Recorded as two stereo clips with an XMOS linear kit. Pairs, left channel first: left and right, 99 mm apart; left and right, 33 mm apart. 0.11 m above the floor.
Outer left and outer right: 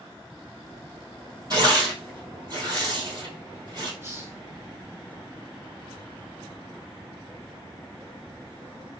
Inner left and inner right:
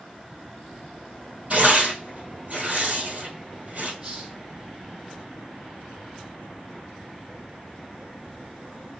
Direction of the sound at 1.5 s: 45° right (ahead or behind).